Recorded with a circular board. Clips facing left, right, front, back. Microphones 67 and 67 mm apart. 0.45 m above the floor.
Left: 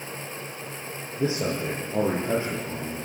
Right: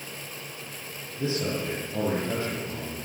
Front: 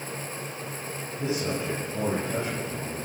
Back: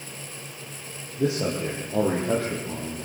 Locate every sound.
1.2 s a man speaking: 145° left, 8.5 m; by 3.0 s 150° left, 10 m